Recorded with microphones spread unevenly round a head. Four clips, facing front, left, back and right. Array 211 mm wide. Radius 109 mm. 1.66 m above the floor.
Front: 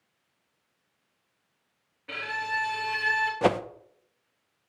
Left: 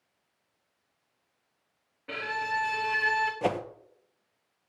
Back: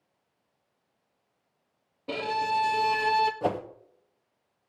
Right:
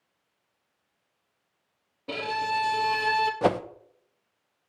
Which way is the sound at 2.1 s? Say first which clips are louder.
Right 4 dB, back 5 dB; 150° right.